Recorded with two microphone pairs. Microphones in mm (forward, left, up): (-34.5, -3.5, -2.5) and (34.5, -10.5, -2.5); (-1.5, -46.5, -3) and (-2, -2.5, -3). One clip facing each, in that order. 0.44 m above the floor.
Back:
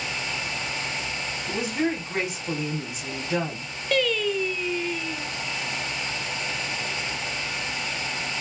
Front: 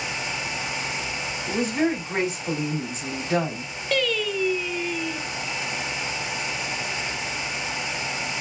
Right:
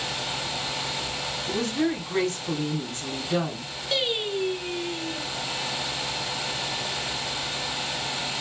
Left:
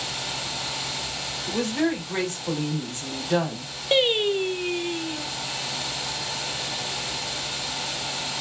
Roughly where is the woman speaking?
Ahead left.